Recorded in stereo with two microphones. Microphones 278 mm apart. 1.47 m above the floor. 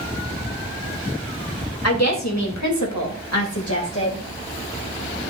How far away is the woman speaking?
About 2.5 m.